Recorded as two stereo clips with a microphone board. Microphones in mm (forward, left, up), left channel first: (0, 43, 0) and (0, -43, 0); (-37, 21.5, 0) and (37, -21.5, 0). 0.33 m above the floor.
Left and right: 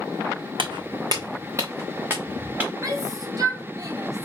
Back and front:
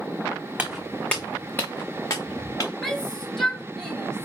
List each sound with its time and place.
0.6 s footsteps: 105° right, 1.4 m; by 2.7 s 160° right, 4 m
2.8 s a shout: 130° right, 2.5 m